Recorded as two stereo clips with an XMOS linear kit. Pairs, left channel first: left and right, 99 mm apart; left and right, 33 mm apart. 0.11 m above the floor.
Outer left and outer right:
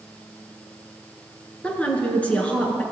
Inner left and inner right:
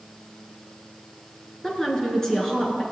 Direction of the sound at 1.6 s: 15° left (ahead or behind).